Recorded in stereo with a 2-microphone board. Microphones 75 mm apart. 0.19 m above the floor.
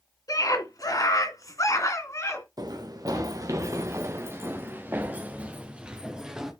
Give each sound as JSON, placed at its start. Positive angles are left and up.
{"t": 0.3, "sound": "a scream", "side_deg": 50, "distance_m": 2.5}
{"t": 2.6, "sound": "running footsteps", "side_deg": -60, "distance_m": 2.5}